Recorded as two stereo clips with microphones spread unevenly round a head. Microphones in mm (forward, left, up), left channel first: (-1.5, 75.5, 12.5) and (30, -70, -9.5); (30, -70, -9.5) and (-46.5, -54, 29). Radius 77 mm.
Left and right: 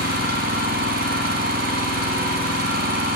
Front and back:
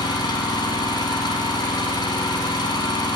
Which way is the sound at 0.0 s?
55° right.